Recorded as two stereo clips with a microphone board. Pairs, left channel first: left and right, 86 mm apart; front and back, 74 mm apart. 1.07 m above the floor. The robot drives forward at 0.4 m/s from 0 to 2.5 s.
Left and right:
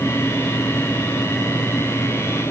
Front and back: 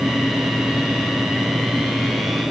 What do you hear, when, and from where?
Only background noise.